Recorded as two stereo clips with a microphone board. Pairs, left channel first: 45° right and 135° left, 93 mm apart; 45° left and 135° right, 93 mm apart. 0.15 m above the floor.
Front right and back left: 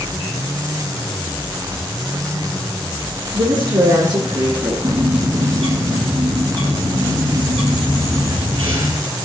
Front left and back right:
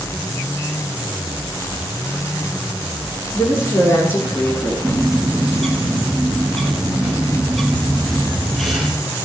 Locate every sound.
3.3 s a woman speaking: 95° left, 7 m; by 4.7 s 105° left, 7.5 m
4.8 s a bird: 135° left, 4.5 m